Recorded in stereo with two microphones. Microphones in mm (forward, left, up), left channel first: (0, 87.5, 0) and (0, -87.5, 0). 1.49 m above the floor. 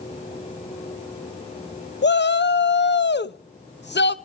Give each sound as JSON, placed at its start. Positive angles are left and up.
{"t": 2.0, "sound": "a shout", "side_deg": 85, "distance_m": 0.7}